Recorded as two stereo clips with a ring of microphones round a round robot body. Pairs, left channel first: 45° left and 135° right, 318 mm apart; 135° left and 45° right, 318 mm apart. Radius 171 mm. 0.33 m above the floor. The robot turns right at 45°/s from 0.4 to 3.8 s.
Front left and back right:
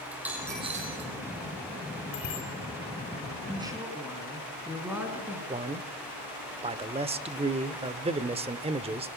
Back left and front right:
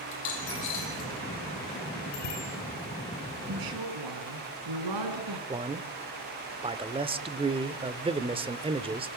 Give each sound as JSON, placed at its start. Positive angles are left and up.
{"t": 0.1, "sound": "a dropped coin", "azimuth_deg": 140, "distance_m": 4.5}
{"t": 2.1, "sound": "a bicycle bell", "azimuth_deg": 95, "distance_m": 7.5}
{"t": 3.5, "sound": "a woman speaking", "azimuth_deg": -65, "distance_m": 4.0}
{"t": 5.5, "sound": "a man speaking", "azimuth_deg": -95, "distance_m": 0.9}